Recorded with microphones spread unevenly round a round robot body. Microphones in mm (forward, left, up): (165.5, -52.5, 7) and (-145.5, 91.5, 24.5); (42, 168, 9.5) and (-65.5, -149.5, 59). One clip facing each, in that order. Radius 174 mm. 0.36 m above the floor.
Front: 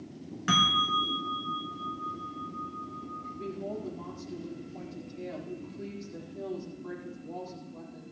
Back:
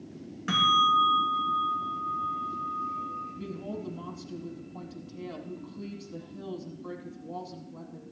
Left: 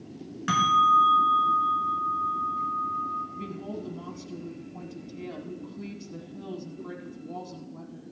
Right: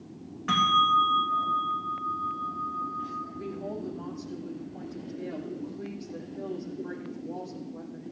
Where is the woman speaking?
115° left, 4 m.